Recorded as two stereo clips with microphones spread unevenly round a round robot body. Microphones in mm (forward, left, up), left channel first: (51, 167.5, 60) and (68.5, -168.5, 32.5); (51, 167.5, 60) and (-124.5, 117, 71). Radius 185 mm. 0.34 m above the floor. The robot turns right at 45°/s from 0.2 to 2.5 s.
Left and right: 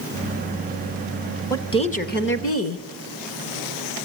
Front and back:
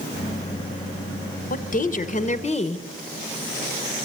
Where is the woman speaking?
10° left, 1.3 m; by 2.9 s 55° left, 1.3 m.